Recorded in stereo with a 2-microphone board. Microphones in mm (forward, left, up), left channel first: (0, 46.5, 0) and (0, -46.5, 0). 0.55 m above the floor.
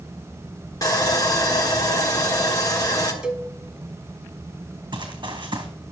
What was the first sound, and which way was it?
Sawing, 40° left (ahead or behind).